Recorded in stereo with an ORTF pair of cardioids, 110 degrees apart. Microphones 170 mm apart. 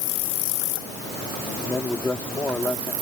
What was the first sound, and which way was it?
A man speaking, 10° left.